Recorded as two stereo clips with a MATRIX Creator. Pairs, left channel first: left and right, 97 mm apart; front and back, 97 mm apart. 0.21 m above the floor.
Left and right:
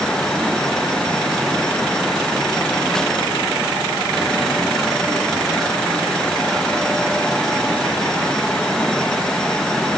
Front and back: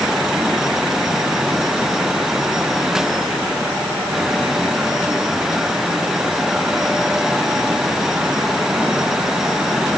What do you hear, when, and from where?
Only background noise.